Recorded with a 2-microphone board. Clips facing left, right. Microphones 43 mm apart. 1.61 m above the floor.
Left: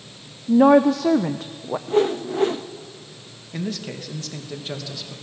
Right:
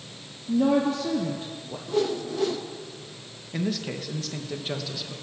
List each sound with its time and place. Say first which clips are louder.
0.5 s a woman speaking: left 8 dB; 80° left, 1.0 m
1.9 s a whoosh: left 5 dB; 35° left (ahead or behind), 1.0 m
3.5 s a man speaking: even; 5° right (ahead or behind), 2 m